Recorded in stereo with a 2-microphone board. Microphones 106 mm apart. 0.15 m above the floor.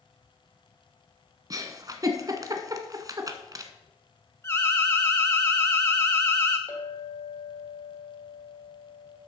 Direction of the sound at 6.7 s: 30° left (ahead or behind).